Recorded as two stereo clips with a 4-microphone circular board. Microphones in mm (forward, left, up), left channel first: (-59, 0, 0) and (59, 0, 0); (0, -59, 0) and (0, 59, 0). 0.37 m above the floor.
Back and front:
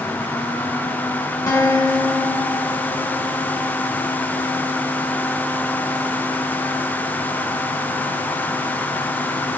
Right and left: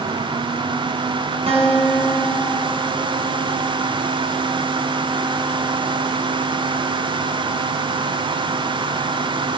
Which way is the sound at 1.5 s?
120° left.